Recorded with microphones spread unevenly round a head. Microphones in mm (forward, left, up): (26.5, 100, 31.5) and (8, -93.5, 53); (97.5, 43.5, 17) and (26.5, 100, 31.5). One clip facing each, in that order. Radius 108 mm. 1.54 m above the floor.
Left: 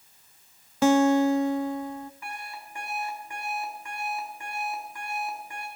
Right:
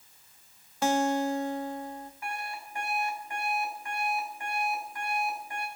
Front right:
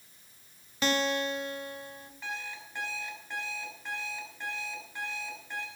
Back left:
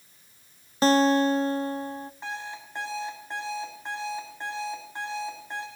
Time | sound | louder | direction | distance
0.8 | a guitar | left 7 dB, back left 9 dB | 85° left | 0.9 m
2.2 | an alarm clock | right 2 dB, back left 4 dB | 85° left | 5.5 m